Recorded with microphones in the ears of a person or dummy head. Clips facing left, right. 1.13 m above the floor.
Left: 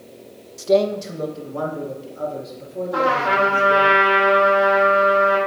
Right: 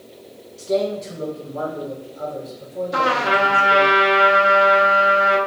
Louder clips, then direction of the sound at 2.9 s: Left 1 dB; 25° right (ahead or behind).